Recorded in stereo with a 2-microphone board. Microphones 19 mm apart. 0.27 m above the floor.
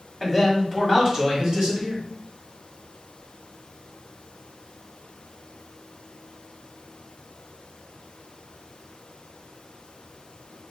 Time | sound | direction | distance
0.2 | a man speaking | 10° right (ahead or behind) | 1.6 m